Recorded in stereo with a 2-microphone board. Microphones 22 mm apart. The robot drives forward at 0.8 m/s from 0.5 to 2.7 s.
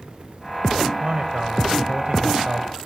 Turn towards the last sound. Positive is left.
turn(degrees=-40)  # may be behind; listen again after turning